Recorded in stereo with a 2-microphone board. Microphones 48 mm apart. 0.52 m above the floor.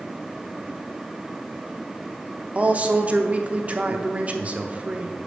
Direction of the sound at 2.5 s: 30° right (ahead or behind).